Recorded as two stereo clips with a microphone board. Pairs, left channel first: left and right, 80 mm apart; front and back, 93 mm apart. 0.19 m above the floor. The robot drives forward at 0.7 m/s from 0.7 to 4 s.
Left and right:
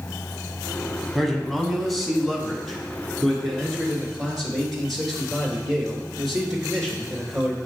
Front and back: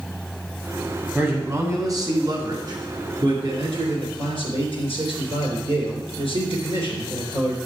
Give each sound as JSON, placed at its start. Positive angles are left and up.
{"t": 1.1, "sound": "a man speaking", "azimuth_deg": 175, "distance_m": 1.1}